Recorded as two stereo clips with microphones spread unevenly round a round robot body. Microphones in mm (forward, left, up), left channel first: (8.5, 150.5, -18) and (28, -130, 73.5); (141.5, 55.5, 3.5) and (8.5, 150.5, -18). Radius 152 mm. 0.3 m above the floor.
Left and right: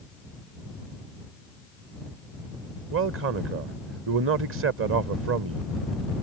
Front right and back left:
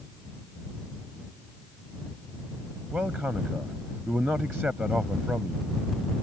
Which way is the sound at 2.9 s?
135° right.